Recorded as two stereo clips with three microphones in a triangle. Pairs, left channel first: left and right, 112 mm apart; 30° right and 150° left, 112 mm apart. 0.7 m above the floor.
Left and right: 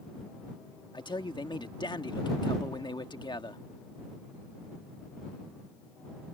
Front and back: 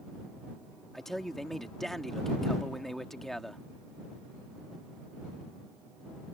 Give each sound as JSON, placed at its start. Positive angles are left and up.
{"t": 0.9, "sound": "a man speaking", "azimuth_deg": 55}